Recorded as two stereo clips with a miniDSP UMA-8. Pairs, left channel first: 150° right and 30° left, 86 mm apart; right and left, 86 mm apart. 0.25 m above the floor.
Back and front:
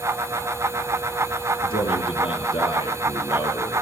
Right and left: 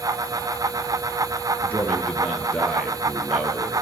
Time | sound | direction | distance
1.6 | a man speaking | 165° right | 5 m